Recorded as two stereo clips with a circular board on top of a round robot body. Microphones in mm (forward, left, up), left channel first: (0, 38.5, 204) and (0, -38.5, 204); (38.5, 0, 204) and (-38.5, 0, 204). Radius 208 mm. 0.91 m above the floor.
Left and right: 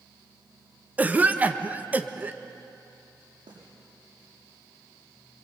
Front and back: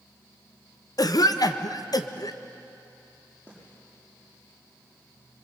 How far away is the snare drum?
About 8 m.